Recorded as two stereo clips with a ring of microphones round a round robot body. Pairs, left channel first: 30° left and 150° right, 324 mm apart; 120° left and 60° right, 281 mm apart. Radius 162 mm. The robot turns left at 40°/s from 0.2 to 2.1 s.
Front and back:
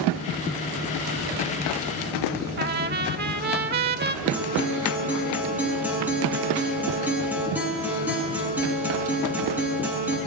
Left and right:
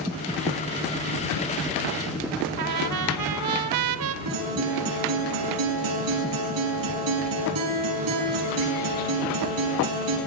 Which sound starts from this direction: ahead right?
A guitar, at 4.2 s.